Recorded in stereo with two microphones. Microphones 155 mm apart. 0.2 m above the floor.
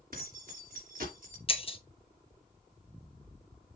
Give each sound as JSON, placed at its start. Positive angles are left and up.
{"t": 0.1, "sound": "keys jangling", "side_deg": -70, "distance_m": 2.5}
{"t": 1.5, "sound": "breaking glass", "side_deg": 40, "distance_m": 0.8}